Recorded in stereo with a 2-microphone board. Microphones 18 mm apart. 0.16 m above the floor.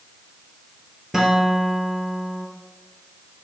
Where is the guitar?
25° right (ahead or behind), 2.5 m.